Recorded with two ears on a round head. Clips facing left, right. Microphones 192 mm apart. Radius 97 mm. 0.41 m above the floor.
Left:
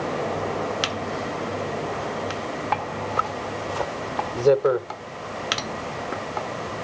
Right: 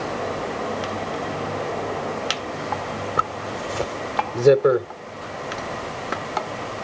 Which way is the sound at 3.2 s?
25° right (ahead or behind).